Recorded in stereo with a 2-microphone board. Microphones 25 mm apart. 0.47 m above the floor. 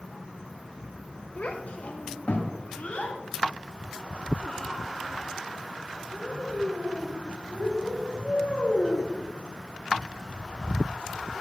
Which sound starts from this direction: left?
A child speaking, at 1.4 s.